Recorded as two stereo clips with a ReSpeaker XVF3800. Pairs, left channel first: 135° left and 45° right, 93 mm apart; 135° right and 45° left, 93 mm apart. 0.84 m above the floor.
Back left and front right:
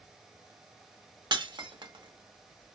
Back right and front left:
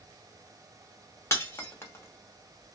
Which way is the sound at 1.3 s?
75° right.